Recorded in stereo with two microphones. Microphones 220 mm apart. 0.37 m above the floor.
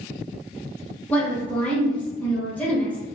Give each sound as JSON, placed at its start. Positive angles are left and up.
{"t": 1.1, "sound": "a woman speaking", "side_deg": 10, "distance_m": 0.9}